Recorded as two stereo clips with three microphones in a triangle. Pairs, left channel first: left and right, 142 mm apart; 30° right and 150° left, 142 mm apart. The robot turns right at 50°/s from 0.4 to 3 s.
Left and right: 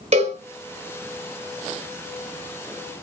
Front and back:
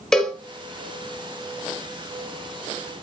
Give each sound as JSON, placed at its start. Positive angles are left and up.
{"t": 0.1, "sound": "a cowbell", "azimuth_deg": -115, "distance_m": 1.7}